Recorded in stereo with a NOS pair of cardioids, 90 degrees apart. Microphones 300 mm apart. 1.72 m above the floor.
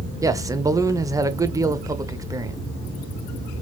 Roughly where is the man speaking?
Ahead.